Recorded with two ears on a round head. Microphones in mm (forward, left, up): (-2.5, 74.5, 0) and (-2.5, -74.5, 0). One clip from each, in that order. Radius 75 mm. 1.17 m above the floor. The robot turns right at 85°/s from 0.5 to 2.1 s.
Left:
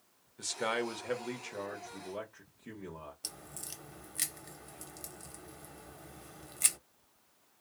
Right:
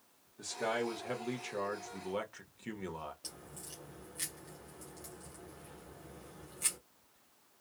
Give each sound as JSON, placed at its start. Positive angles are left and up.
{"t": 0.4, "sound": "a man speaking", "azimuth_deg": 105, "distance_m": 1.0}
{"t": 3.2, "sound": "a crack", "side_deg": 40, "distance_m": 0.7}